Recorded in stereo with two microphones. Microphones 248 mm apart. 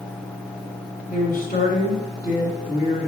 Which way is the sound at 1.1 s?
35° left (ahead or behind).